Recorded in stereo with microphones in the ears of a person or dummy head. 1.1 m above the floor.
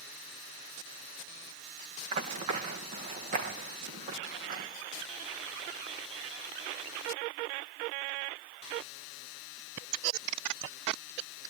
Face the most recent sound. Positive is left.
turn(degrees=-45)  # may be behind; listen again after turning